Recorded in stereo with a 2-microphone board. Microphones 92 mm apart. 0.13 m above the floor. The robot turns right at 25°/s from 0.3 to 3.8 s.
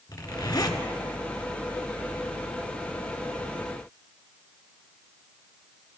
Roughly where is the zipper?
Left.